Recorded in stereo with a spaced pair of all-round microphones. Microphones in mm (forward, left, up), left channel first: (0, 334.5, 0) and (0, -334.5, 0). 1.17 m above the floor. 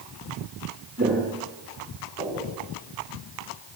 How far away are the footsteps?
About 6.5 m.